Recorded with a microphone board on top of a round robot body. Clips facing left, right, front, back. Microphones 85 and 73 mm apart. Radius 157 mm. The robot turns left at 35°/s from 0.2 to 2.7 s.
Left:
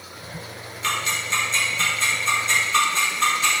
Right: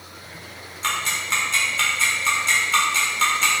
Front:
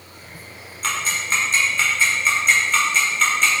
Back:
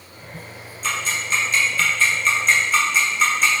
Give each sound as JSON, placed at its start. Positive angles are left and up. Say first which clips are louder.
{"t": 0.8, "sound": "ticking", "louder": "even, front 1 dB", "azimuth_deg": -35, "distance_m": 1.4}